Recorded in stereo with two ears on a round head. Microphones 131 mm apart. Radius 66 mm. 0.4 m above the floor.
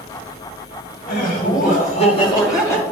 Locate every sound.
1.1 s laughter: 65° left (ahead or behind), 2.5 m; by 2.8 s 15° left (ahead or behind), 2 m